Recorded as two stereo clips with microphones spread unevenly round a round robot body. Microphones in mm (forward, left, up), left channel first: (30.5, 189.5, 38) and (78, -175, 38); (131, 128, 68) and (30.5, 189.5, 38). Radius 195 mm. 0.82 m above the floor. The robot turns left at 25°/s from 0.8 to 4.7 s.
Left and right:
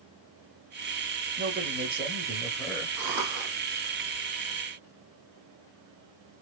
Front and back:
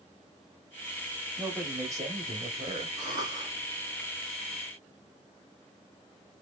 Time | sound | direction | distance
1.4 | a man speaking | 145° right | 1.3 m
3.0 | a cough | 75° right | 1.2 m